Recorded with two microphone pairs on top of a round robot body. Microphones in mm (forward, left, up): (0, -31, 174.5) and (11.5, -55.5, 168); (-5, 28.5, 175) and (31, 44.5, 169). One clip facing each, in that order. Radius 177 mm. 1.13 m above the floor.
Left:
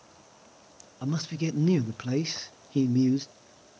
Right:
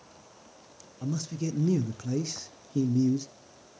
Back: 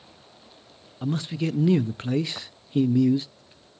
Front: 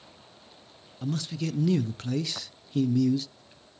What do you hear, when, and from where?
1.0 s a man speaking: 145° left, 0.7 m